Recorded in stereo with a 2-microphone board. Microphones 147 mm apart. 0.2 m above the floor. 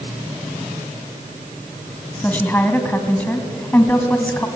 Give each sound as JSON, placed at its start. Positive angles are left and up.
{"t": 2.2, "sound": "a woman speaking", "side_deg": 10, "distance_m": 1.7}